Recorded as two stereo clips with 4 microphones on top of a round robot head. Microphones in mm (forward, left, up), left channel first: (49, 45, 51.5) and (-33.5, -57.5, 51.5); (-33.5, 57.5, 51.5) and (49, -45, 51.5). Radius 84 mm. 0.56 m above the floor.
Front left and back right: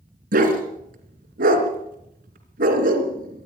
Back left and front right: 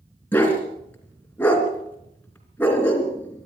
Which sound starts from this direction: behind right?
A dog barking, at 0.3 s.